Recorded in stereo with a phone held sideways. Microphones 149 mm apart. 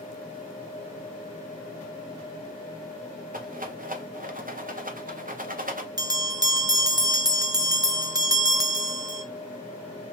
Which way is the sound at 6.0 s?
25° right (ahead or behind).